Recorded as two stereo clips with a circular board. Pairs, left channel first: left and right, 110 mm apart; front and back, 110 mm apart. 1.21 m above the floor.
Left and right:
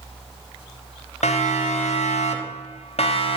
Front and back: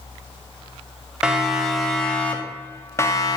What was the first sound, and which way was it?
A siren, 95° left.